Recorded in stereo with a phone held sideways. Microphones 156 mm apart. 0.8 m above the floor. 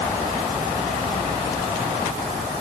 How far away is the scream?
I don't hear a scream.